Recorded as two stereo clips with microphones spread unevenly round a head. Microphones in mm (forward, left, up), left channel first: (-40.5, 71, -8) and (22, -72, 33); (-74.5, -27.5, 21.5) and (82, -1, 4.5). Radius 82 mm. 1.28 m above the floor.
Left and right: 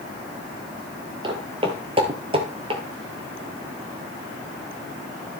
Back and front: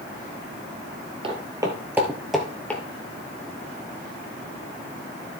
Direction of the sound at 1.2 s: 45° right.